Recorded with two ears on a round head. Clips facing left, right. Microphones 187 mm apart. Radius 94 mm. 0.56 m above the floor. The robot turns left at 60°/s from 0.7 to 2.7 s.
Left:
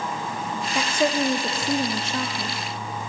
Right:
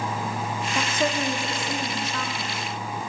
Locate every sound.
0.8 s a woman speaking: 5° left (ahead or behind), 1.3 m; by 2.6 s 20° left (ahead or behind), 1.3 m